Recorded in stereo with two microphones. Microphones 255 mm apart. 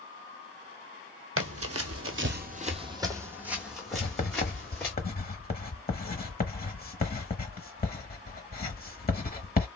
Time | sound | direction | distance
1.4 | running footsteps | 55° right (ahead or behind) | 0.7 m
3.9 | writing | 35° left (ahead or behind) | 0.8 m